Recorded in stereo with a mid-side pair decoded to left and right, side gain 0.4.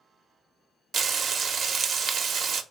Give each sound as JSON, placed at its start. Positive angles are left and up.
{"t": 0.9, "sound": "frying", "azimuth_deg": -60, "distance_m": 0.5}